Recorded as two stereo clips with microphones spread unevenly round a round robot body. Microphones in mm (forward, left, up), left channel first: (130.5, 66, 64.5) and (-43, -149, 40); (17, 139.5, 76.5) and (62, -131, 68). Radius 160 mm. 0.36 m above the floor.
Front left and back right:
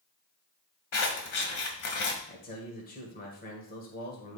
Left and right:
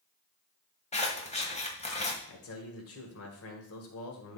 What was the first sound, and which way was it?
Scissors, 35° left.